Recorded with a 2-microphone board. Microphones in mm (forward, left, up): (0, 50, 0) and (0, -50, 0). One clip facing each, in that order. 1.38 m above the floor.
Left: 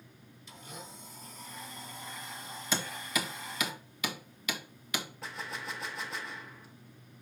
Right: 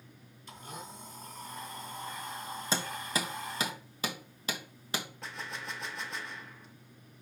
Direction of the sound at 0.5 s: 55° right (ahead or behind).